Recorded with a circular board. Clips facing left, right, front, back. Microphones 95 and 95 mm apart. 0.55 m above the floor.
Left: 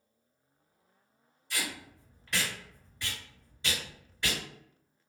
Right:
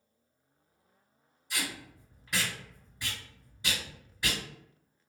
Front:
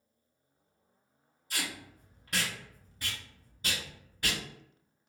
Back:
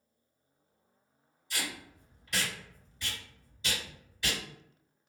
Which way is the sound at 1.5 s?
15° right.